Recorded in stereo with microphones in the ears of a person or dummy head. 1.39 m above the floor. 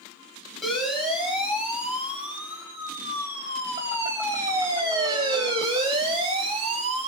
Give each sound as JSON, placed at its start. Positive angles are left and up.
{"t": 0.6, "sound": "a siren", "side_deg": 0, "distance_m": 7.5}